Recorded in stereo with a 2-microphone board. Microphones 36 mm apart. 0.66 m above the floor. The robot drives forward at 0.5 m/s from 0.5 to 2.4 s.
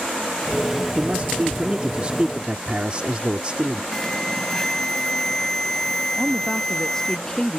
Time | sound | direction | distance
1.0 | a man speaking | 40° right (ahead or behind) | ?
3.9 | an alarm | 10° left (ahead or behind) | ?
6.2 | a woman speaking | 20° left (ahead or behind) | ?